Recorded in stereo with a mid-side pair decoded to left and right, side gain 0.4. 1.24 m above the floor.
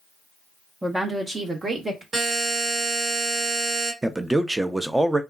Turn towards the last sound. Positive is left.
turn(degrees=-15)